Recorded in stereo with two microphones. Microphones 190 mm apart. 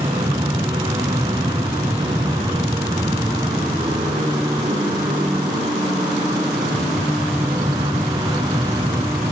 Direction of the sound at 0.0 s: 20° right (ahead or behind).